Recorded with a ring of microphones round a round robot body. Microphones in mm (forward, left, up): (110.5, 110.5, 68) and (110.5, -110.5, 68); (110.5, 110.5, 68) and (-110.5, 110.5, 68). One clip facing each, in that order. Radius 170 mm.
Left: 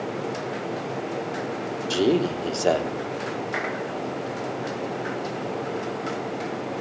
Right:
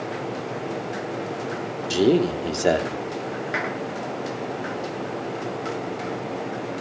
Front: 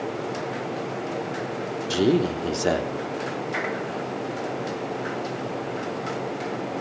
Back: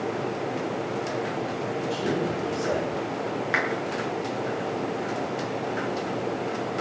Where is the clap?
155° right, 7 m.